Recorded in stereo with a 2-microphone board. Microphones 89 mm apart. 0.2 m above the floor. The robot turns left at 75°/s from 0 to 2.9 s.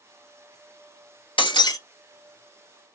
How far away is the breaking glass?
About 0.9 m.